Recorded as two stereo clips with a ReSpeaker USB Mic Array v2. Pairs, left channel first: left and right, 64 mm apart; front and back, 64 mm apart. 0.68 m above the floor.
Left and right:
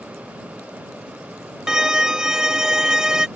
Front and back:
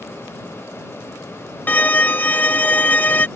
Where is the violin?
20° right.